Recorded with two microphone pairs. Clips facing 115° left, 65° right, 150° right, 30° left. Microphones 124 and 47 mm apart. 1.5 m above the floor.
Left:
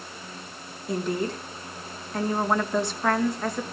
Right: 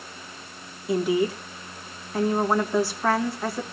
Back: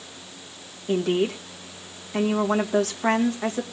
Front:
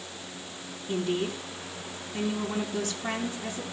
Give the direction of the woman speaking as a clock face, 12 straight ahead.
5 o'clock.